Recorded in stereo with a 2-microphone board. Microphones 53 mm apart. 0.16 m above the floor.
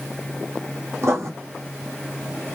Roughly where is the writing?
Right.